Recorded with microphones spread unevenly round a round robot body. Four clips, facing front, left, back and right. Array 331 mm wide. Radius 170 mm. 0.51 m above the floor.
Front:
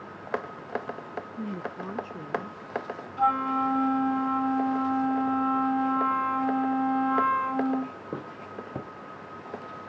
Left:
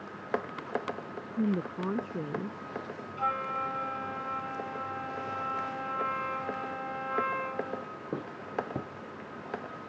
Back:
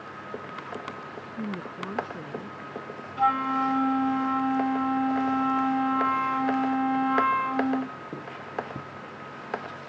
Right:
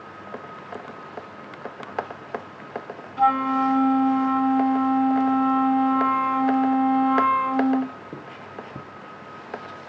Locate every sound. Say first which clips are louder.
1.3 s a woman speaking: left 7 dB, back 2 dB; 95° left; by 2.6 s 90° left
3.2 s a flute: right 13 dB, back 1 dB; 90° right